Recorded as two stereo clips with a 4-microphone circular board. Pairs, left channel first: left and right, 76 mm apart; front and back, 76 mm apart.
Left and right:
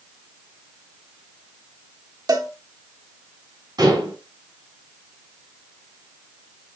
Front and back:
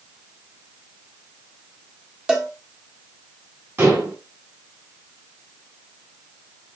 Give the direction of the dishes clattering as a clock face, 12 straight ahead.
4 o'clock.